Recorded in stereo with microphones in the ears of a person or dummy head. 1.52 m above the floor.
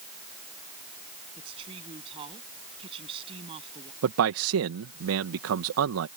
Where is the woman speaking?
30° right (ahead or behind).